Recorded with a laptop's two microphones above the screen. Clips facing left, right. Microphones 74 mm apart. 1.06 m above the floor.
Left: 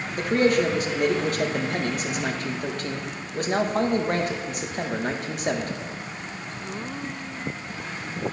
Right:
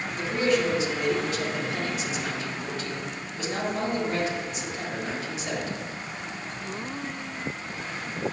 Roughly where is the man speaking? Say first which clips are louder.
Left 4 dB; left.